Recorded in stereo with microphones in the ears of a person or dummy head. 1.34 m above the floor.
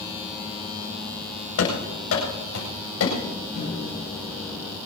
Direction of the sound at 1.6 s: 80° left.